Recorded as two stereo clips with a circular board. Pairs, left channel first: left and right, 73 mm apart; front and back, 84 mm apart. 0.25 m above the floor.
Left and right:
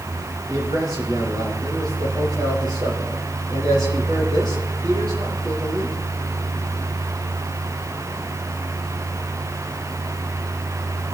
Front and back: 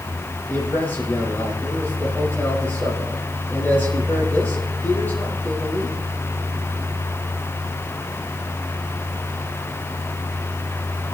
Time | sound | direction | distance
0.5 | a man speaking | 65° right | 6.5 m